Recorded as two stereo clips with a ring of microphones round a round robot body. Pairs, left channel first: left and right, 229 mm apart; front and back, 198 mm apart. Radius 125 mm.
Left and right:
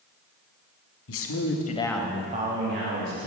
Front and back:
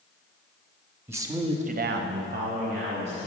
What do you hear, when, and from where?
1.1 s a man speaking: 100° left, 1.2 m; by 3.3 s 120° right, 1.9 m